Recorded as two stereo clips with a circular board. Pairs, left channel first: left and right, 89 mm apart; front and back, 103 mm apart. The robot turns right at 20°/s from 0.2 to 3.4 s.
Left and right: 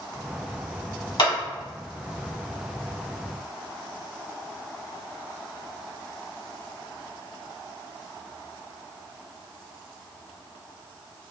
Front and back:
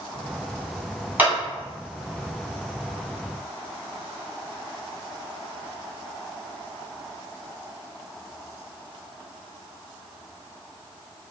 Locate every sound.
1.2 s a clap: 105° left, 1.7 m; by 1.3 s 110° left, 1.7 m